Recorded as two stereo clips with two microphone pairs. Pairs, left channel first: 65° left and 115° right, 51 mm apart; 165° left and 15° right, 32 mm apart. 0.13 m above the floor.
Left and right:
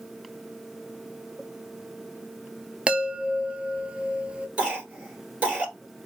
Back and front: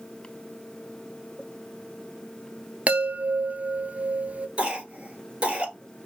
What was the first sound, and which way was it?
A chime, 45° right.